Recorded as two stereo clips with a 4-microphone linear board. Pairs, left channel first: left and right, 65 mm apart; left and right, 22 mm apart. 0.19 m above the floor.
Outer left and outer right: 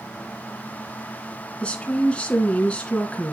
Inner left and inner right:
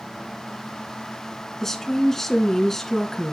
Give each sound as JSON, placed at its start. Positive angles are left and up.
{"t": 1.6, "sound": "a woman speaking", "side_deg": 20, "distance_m": 2.5}